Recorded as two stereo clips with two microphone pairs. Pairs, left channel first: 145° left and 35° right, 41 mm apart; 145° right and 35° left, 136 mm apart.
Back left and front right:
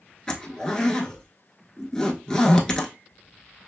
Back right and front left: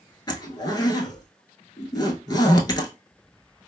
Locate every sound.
0.3 s a zipper: 165° right, 0.5 m